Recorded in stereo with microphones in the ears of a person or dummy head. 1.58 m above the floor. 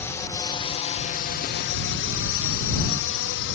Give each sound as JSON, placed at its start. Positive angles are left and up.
{"t": 0.0, "sound": "a drone", "side_deg": 10}